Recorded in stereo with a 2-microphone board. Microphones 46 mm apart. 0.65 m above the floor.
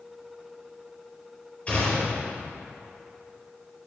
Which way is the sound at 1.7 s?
30° left (ahead or behind).